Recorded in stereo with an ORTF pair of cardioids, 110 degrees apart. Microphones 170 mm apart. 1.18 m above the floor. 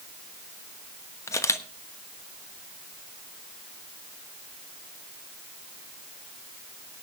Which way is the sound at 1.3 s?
15° left.